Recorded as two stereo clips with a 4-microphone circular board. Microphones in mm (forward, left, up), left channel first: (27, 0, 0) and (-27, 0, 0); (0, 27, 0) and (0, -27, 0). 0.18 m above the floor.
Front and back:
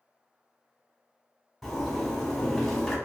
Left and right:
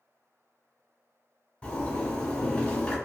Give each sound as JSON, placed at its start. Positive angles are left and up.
{"t": 1.6, "sound": "a zipper", "azimuth_deg": 80, "distance_m": 1.1}